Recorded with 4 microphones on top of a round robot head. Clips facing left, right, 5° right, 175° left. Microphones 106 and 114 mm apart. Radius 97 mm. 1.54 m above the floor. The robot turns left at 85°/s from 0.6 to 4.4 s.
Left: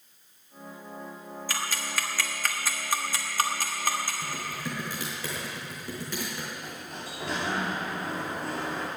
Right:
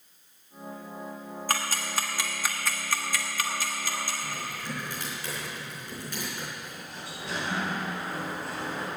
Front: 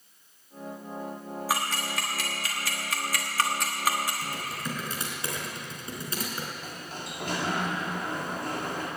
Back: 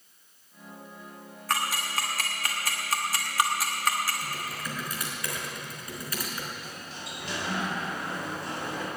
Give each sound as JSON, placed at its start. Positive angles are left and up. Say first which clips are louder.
{"t": 1.5, "sound": "ticking", "louder": "right 3 dB, back 1 dB", "azimuth_deg": -85, "distance_m": 1.1}
{"t": 4.2, "sound": "typing on a keyboard", "louder": "left 1 dB, front 1 dB", "azimuth_deg": 75, "distance_m": 3.5}
{"t": 6.5, "sound": "a sliding door", "louder": "left 2 dB, front 2 dB", "azimuth_deg": 35, "distance_m": 2.5}